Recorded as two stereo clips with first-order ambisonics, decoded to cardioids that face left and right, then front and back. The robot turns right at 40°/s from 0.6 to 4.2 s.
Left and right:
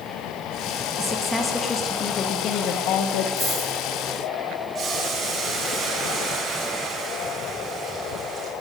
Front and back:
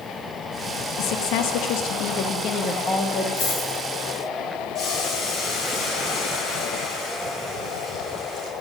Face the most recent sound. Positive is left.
turn(degrees=-30)